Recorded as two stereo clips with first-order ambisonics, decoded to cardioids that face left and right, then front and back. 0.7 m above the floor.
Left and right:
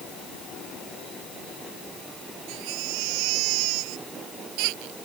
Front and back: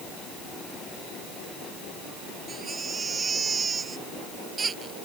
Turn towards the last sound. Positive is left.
turn(degrees=-110)